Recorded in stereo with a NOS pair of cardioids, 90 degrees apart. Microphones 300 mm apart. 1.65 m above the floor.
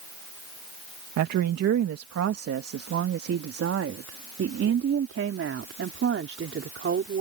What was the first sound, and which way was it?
A woman speaking, 70° right.